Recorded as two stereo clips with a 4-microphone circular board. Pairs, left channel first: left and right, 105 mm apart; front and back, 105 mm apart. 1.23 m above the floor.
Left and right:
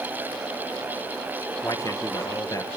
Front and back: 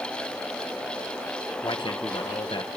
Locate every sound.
1.6 s a man speaking: 35° left, 1.4 m